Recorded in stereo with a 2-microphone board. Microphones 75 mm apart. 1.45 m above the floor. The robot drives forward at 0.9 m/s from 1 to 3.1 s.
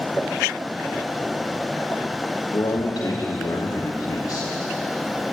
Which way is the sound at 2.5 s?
65° left (ahead or behind).